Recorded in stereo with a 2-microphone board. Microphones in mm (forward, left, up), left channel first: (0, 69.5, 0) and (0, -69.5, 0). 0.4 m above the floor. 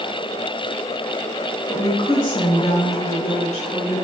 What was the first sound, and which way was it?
A woman speaking, 25° left (ahead or behind).